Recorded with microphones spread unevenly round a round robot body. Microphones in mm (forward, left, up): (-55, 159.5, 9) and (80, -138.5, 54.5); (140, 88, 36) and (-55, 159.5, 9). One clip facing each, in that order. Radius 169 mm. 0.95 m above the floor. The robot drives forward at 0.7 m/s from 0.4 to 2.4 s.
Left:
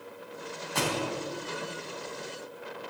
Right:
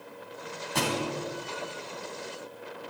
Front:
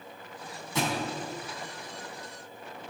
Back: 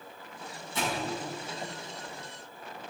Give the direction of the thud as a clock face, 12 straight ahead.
1 o'clock.